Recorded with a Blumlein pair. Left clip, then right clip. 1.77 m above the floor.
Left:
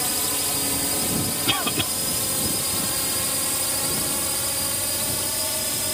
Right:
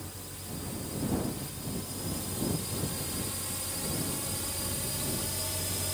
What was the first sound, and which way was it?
A drone, 50° left.